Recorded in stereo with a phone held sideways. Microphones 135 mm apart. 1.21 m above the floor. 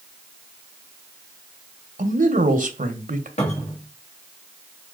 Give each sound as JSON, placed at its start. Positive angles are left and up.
{"t": 2.0, "sound": "a man speaking", "side_deg": -75, "distance_m": 1.2}
{"t": 3.4, "sound": "a cupboard door", "side_deg": 50, "distance_m": 3.0}